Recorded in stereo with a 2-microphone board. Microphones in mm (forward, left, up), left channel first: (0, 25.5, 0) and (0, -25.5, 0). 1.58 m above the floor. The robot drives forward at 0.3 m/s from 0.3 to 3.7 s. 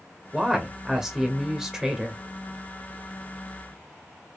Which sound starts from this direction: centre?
A woman speaking, at 0.3 s.